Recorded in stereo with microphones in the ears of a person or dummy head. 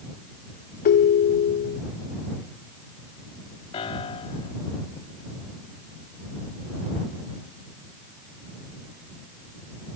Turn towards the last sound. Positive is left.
turn(degrees=30)  # may be behind; listen again after turning